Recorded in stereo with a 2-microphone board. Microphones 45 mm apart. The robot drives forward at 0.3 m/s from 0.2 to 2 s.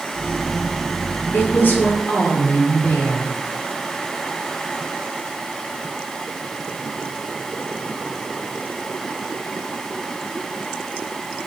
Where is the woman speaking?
50° left (ahead or behind), 2 m.